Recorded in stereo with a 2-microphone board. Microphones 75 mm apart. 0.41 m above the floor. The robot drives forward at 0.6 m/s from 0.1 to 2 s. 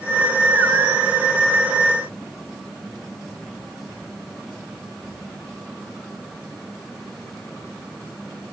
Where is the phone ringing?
I don't hear a phone ringing.